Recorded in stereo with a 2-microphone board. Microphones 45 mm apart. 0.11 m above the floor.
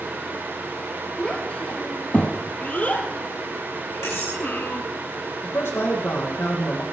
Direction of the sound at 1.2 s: 25° left (ahead or behind).